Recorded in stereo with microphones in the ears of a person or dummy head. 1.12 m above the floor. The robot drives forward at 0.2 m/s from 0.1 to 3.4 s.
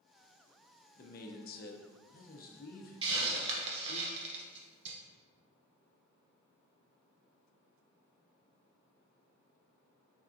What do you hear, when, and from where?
1.0 s a man speaking: 50° left (ahead or behind), 0.5 m; by 4.0 s 35° left (ahead or behind), 0.6 m
3.0 s a hiss: 30° right (ahead or behind), 0.7 m; by 5.0 s 35° right (ahead or behind), 0.7 m